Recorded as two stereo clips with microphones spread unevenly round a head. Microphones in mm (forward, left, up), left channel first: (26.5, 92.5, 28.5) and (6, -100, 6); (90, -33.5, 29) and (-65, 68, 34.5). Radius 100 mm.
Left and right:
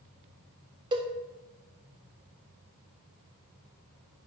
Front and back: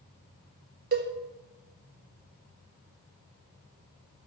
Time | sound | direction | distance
0.9 | a cowbell | 165° right | 1.5 m